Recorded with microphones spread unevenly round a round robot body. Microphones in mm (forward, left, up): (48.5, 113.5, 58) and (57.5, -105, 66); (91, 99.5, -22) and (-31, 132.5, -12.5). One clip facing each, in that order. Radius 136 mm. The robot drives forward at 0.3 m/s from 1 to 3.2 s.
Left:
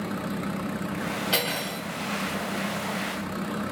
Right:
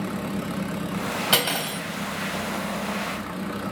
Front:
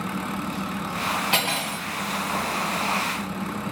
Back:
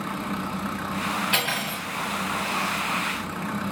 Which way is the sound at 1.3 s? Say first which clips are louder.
Right 2 dB, front 2 dB; 75° right.